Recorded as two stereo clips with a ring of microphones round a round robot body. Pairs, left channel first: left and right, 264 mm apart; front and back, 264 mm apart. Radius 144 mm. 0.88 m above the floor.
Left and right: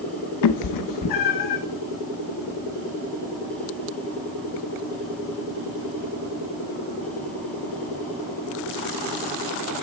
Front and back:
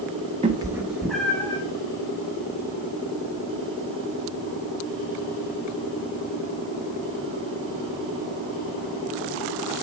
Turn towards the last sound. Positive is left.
turn(degrees=80)